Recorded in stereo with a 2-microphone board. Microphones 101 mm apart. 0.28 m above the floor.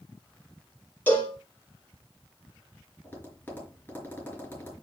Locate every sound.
1.1 s a cowbell: 15° left (ahead or behind), 4.5 m
3.0 s tapping: 20° left (ahead or behind), 5 m